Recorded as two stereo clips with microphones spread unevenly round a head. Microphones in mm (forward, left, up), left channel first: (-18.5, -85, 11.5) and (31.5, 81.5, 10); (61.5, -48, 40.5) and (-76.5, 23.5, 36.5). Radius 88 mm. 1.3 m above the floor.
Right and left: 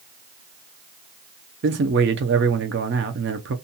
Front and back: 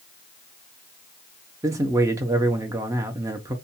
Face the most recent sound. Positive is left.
turn(degrees=80)